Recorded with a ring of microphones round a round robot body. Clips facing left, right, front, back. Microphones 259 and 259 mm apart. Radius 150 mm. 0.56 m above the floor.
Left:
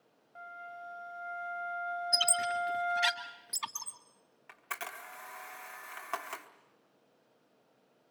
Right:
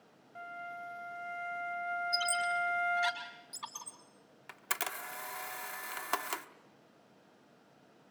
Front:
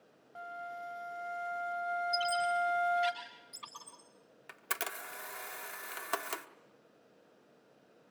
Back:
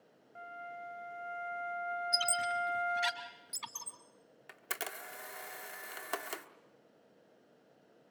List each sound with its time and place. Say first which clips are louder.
0.3 s a flute: right 3 dB, front 3 dB; 30° right, 1.8 m
2.1 s a squeak: left 2 dB, front 6 dB; 140° left, 3 m
4.5 s a camera shutter: right 4 dB, front 1 dB; 85° right, 1.1 m